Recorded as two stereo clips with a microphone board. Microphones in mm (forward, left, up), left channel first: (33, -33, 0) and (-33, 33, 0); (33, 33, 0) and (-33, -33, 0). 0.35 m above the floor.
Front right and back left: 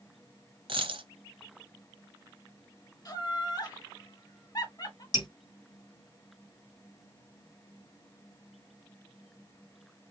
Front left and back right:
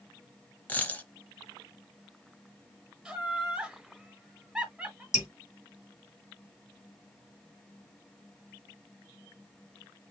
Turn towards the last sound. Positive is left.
turn(degrees=-10)